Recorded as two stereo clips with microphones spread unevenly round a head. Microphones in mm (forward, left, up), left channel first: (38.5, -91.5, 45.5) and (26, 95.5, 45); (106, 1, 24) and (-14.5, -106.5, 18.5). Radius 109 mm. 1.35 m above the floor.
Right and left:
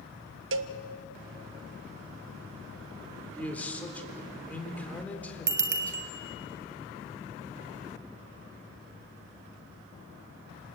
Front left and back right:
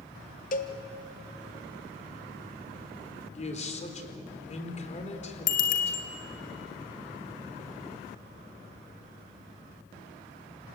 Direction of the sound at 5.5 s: 60° left.